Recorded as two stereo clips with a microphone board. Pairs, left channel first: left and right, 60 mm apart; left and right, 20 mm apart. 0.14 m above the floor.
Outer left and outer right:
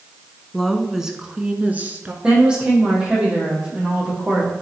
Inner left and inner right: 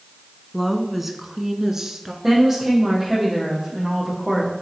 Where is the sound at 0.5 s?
5° left (ahead or behind), 1.1 m; by 2.1 s 30° right (ahead or behind), 1.5 m.